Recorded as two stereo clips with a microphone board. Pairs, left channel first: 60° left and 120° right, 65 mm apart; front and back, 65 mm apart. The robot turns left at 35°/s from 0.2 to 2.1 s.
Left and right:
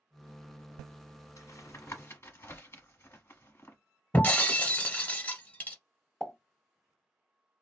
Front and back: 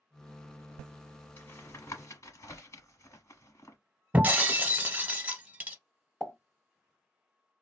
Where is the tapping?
45° left, 1.0 m; by 3.8 s 20° left, 1.0 m.